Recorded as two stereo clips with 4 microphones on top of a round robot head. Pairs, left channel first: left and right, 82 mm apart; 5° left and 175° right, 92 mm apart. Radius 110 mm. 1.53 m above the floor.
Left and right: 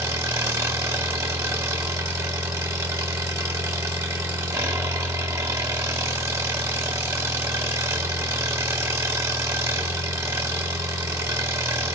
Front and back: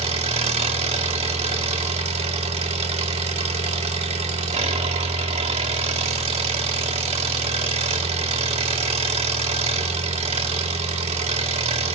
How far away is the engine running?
About 1.7 m.